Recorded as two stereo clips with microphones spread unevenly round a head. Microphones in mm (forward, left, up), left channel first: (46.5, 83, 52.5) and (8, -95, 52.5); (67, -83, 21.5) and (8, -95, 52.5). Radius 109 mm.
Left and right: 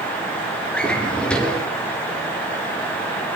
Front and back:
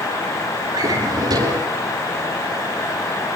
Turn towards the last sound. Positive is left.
turn(degrees=165)